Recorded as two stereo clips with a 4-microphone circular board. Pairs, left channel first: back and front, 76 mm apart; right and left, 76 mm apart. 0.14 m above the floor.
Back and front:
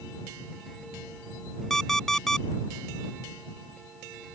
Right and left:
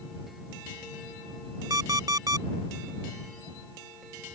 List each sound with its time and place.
1.7 s an alarm clock: 100° left